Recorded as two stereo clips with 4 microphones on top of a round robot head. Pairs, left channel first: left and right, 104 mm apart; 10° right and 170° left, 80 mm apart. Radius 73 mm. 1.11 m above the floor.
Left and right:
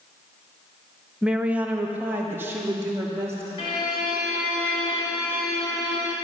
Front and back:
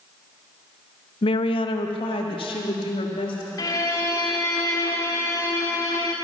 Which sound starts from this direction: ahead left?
A violin, at 3.6 s.